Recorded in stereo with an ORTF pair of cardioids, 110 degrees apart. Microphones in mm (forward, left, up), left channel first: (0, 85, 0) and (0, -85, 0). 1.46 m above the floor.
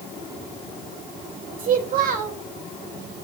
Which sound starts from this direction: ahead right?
A child speaking, at 1.6 s.